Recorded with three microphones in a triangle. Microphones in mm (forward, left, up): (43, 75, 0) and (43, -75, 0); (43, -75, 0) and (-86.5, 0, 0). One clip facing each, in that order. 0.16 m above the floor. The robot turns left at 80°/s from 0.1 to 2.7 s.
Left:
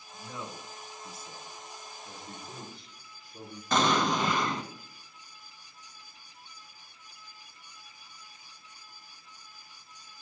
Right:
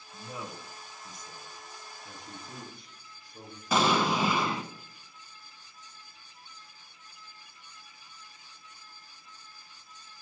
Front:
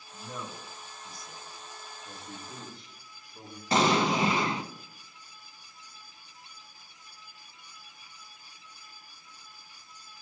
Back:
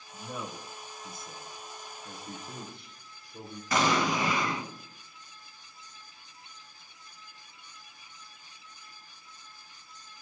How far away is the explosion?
About 1.0 m.